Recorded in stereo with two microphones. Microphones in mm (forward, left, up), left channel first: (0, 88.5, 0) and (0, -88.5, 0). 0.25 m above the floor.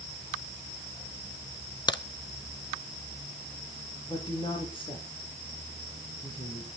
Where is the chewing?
No chewing in this recording.